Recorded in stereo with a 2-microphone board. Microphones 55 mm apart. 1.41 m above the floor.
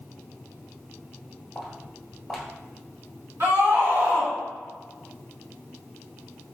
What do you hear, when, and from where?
1.6 s footsteps: 5° right (ahead or behind), 1.4 m
3.4 s a scream: 60° right (ahead or behind), 1.9 m